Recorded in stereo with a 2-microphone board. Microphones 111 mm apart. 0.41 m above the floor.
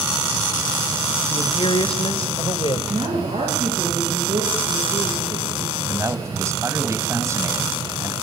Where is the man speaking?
25° right (ahead or behind), 2.5 m.